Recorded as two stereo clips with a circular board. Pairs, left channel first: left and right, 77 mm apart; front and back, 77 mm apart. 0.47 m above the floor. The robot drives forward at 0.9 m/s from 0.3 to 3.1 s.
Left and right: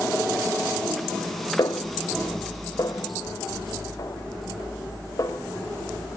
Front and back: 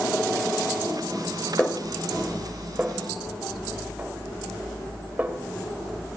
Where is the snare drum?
70° left, 2 m; by 5.4 s 115° left, 2 m.